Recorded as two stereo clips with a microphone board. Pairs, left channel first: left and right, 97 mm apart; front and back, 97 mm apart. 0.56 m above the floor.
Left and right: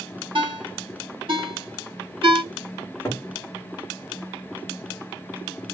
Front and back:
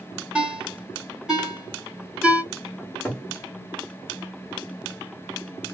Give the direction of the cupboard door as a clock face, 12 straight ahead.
10 o'clock.